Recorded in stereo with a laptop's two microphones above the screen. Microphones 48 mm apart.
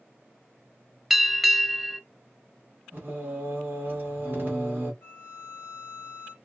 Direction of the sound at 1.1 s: 5° right (ahead or behind).